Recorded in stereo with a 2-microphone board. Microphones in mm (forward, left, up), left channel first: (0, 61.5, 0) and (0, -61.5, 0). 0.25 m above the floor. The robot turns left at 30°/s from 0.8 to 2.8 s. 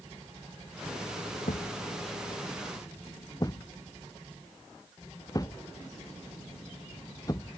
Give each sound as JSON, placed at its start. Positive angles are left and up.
{"t": 1.5, "sound": "a thud", "side_deg": 70}